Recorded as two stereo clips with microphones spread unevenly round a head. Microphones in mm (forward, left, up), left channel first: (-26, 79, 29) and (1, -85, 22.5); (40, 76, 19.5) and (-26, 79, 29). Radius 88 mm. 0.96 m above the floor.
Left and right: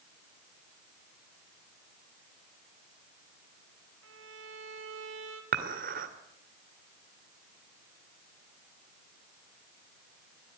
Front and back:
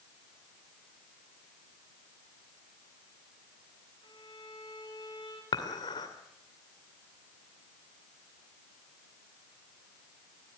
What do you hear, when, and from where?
4.0 s a violin: 65° right, 3 m
5.5 s dishes clattering: 40° right, 2.5 m